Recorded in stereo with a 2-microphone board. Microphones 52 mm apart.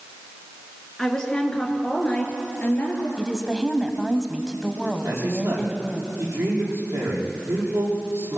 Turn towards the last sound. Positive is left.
turn(degrees=-65)  # may be behind; listen again after turning